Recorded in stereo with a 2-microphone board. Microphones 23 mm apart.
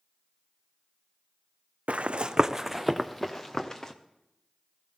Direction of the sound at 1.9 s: 75° right (ahead or behind).